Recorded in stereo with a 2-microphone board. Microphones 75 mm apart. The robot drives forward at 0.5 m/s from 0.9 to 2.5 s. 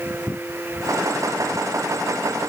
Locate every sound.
Only background noise.